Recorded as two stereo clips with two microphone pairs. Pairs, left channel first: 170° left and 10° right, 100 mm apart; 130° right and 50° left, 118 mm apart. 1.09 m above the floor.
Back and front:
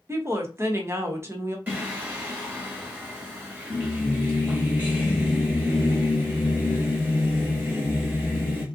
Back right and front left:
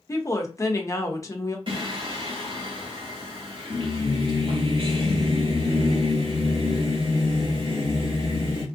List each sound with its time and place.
0.1 s a woman speaking: 70° right, 0.6 m
1.7 s singing: 50° left, 1.0 m